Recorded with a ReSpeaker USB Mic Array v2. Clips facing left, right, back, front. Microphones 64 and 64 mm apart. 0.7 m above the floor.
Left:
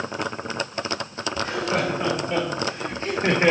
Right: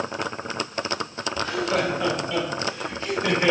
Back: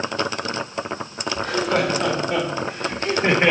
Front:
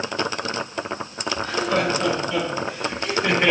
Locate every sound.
1.4 s laughter: 155° left, 2.5 m; by 3.5 s 115° left, 0.8 m